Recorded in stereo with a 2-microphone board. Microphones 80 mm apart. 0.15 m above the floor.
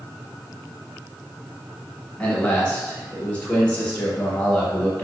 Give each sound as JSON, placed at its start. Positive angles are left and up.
{"t": 2.2, "sound": "a man speaking", "side_deg": 15, "distance_m": 1.5}